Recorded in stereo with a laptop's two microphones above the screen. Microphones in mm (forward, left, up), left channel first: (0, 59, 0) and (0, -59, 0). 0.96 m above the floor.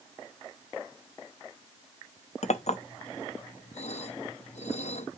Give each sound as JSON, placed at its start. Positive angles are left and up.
{"t": 2.4, "sound": "a clink", "side_deg": 70, "distance_m": 0.7}